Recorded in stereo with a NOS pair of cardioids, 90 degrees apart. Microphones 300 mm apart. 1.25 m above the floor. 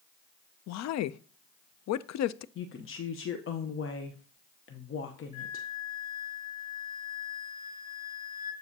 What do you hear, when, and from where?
0.7 s a woman speaking: 65° left, 0.5 m
2.5 s a woman speaking: 45° left, 1.0 m
5.3 s a flute: 15° right, 3 m